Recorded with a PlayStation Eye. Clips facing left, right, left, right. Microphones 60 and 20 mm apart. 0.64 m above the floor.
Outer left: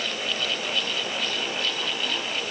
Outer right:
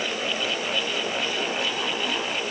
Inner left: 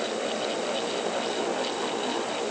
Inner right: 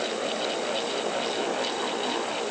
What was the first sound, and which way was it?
Only background noise.